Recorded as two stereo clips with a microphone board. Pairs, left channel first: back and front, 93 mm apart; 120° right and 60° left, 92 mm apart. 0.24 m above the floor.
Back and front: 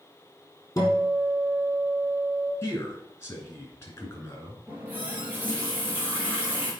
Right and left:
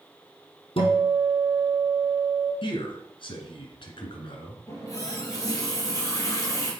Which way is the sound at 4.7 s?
70° right.